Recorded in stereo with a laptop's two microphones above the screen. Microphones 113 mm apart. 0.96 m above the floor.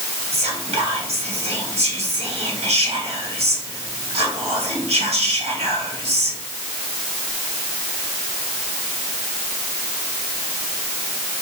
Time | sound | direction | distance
0.3 | whispering | 70° right (ahead or behind) | 1.7 m